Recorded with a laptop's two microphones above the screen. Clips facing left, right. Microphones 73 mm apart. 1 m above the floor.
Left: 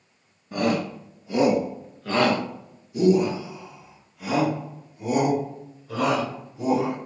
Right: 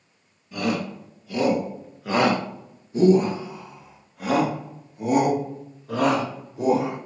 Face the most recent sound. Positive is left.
turn(degrees=-70)  # may be behind; listen again after turning